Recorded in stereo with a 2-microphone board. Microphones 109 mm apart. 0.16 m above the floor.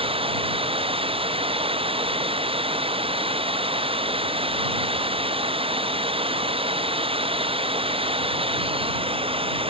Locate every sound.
0.0 s running water: 55° right (ahead or behind)